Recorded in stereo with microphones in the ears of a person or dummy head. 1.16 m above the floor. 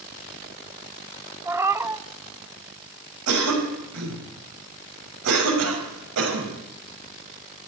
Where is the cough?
85° right, 5.5 m.